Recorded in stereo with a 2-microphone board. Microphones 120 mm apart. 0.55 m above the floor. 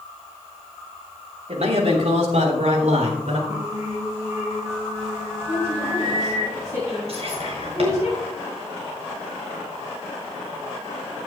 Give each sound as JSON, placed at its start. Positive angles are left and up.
{"t": 1.5, "sound": "a man speaking", "side_deg": -60, "distance_m": 2.5}
{"t": 3.5, "sound": "singing", "side_deg": -30, "distance_m": 6.0}
{"t": 5.5, "sound": "a woman speaking", "side_deg": -25, "distance_m": 6.0}
{"t": 7.1, "sound": "whispering", "side_deg": -60, "distance_m": 6.5}